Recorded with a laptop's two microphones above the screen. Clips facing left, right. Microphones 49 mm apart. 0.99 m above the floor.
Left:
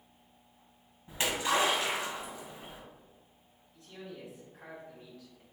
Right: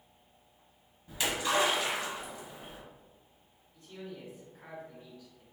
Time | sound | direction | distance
1.1 | a splash | 30° left (ahead or behind) | 1.1 m
3.7 | a man speaking | 75° left (ahead or behind) | 1.5 m